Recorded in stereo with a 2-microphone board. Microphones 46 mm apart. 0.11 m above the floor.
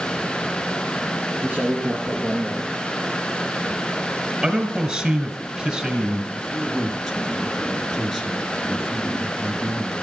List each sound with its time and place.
1.4 s a man speaking: 30° right (ahead or behind), 2.0 m
4.4 s a man speaking: 20° right (ahead or behind), 1.7 m
6.3 s a man speaking: centre (ahead or behind), 2.0 m